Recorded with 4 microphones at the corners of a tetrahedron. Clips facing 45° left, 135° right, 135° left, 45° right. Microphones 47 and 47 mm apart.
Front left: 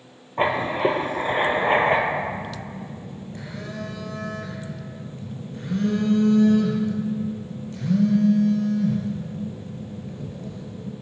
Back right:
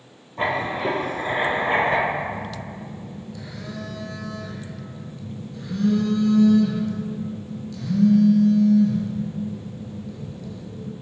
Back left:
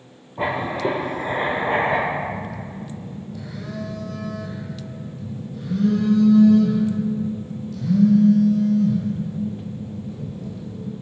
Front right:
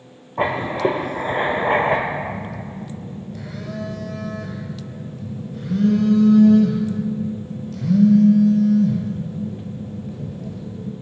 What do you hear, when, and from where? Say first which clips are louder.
0.4 s writing: front left 2 dB, front right 3 dB; 15° right, 0.9 m
2.1 s a phone buzzing: even, even; 10° right, 0.9 m